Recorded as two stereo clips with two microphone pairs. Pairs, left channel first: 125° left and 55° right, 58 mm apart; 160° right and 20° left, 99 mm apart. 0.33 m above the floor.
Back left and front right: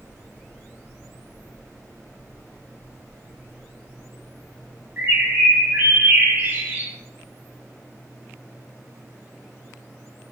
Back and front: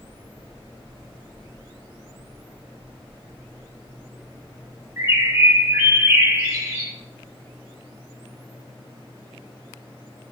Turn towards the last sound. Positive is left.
turn(degrees=-20)